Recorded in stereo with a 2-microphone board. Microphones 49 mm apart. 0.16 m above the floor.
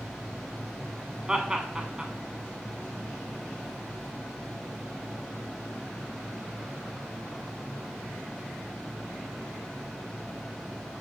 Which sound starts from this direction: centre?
Laughter, at 1.3 s.